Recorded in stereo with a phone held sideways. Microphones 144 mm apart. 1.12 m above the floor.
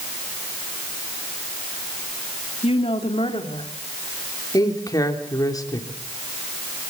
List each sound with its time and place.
2.6 s a woman speaking: 45° left (ahead or behind), 2.5 m; by 3.7 s 40° left (ahead or behind), 3.5 m
4.5 s a man speaking: 25° left (ahead or behind), 3 m